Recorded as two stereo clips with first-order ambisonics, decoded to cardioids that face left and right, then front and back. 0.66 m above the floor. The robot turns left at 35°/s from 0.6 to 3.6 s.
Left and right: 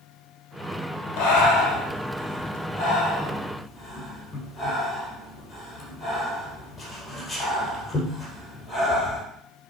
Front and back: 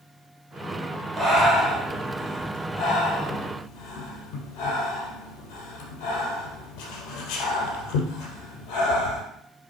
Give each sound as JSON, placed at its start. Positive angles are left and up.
{"t": 1.2, "sound": "breathing", "azimuth_deg": 100, "distance_m": 2.5}